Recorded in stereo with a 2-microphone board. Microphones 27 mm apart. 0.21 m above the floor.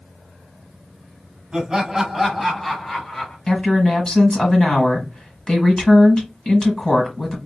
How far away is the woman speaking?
About 1.3 m.